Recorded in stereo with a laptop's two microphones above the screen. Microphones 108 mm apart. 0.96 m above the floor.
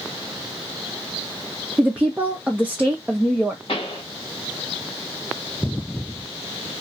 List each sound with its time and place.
1.8 s a woman speaking: 15° right (ahead or behind), 0.6 m
3.7 s a pop: 55° left (ahead or behind), 1.5 m